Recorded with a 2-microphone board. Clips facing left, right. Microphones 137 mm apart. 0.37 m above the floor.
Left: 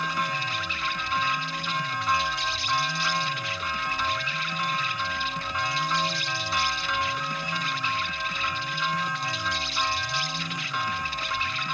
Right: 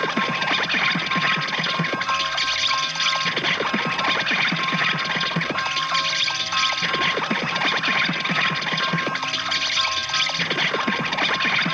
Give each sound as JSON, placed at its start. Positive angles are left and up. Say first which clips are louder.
{"t": 0.0, "sound": "an insect", "louder": "right 6 dB", "side_deg": -70}